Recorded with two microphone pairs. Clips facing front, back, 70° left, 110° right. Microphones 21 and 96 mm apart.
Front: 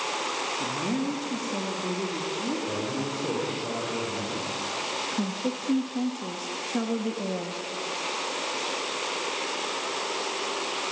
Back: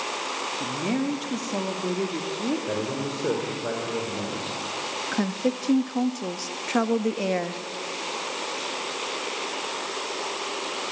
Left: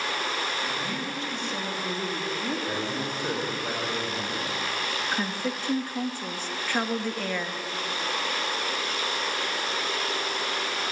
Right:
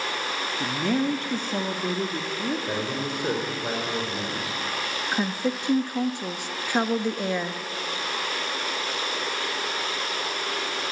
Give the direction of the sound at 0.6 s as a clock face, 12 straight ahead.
4 o'clock.